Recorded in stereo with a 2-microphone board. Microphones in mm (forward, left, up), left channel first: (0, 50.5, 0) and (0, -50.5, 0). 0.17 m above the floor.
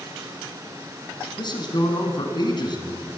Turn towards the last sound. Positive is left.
turn(degrees=45)  # may be behind; listen again after turning